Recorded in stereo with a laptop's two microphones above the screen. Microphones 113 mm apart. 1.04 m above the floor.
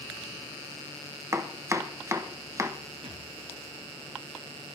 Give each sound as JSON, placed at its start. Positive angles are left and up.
{"t": 1.3, "sound": "chopping", "side_deg": -25, "distance_m": 0.9}
{"t": 3.0, "sound": "a thud", "side_deg": -70, "distance_m": 5.5}